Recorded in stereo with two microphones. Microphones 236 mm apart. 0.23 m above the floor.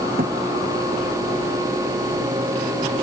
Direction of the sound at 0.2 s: 40° right (ahead or behind).